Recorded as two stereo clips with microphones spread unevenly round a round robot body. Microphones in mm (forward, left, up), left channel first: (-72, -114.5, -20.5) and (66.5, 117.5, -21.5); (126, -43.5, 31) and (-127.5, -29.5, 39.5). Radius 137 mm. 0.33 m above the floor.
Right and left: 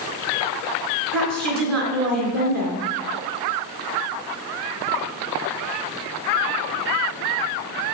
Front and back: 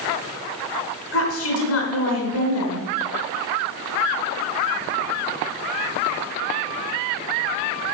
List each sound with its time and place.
1.1 s a woman speaking: 30° left, 3.5 m